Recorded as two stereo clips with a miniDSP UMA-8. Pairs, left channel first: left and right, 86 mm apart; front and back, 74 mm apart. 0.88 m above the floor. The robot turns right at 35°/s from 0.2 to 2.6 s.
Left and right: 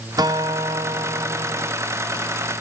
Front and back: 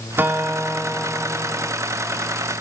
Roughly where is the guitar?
Behind right.